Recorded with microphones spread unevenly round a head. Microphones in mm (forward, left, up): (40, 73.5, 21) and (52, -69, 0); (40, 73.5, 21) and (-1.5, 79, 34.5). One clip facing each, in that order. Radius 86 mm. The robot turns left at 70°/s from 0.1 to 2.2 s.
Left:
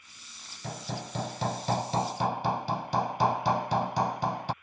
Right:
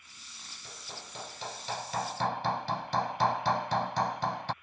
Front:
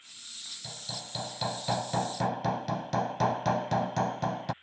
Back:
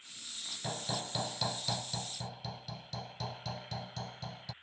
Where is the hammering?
130° left; by 4.5 s 25° left.